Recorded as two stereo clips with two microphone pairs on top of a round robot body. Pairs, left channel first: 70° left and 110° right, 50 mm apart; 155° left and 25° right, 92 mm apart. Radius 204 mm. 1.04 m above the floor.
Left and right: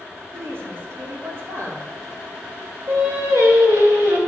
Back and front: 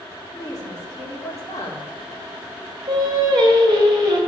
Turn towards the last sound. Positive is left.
turn(degrees=-70)